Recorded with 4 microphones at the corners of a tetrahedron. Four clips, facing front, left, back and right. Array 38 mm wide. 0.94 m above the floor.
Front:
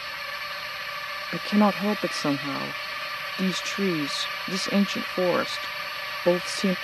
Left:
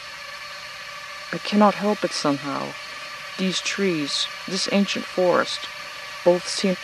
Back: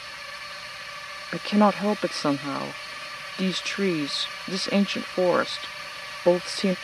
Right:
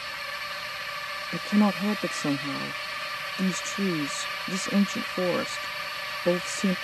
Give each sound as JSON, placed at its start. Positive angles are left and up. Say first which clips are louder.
{"t": 0.0, "sound": "a drone", "louder": "right 2 dB, front 4 dB", "azimuth_deg": -25}
{"t": 1.3, "sound": "a woman speaking", "louder": "left 6 dB, back 2 dB", "azimuth_deg": 105}